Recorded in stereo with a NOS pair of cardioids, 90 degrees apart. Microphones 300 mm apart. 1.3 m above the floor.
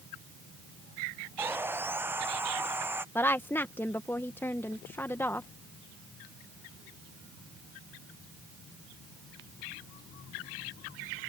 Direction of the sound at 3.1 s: 10° left.